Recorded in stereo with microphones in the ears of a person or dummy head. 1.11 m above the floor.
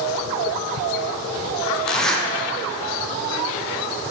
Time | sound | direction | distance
1.9 | a zipper | 5° left (ahead or behind) | 0.7 m